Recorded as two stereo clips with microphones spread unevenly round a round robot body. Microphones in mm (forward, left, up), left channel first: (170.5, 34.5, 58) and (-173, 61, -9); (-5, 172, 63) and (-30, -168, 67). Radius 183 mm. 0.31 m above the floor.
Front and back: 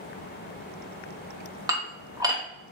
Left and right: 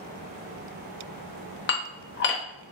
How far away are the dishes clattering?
About 0.9 m.